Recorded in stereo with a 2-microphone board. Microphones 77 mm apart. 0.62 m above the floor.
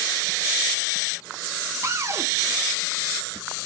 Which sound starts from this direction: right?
A cupboard door, at 1.8 s.